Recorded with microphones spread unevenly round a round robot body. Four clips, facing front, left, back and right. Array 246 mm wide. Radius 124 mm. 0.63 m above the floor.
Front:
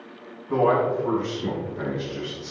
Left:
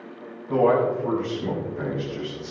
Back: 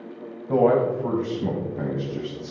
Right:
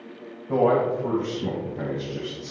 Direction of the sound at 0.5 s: 165° right.